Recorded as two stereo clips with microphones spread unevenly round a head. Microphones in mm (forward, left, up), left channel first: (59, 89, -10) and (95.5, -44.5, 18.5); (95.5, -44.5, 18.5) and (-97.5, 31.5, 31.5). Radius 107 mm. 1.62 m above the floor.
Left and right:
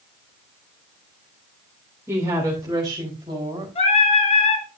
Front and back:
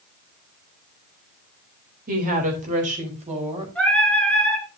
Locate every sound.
2.1 s a woman speaking: 150° right, 3.5 m; by 3.6 s 140° right, 4 m
3.8 s singing: 65° left, 3.5 m